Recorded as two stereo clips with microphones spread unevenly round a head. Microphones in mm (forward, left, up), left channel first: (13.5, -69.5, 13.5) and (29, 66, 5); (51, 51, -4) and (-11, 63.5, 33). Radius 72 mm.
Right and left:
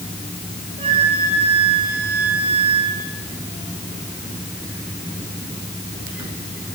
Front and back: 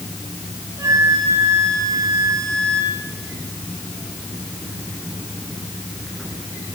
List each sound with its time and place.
0.8 s a flute: 140° left, 7 m